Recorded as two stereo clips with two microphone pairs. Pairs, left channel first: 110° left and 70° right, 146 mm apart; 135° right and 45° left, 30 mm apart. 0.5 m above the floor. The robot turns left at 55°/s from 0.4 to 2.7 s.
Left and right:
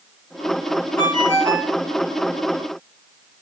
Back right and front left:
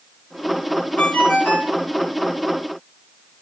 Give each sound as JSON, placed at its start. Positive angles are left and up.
{"t": 1.0, "sound": "a ringtone", "azimuth_deg": -95, "distance_m": 3.5}